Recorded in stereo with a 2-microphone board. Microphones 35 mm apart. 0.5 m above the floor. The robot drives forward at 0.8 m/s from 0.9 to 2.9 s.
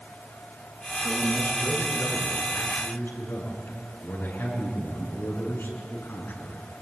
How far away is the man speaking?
About 7 m.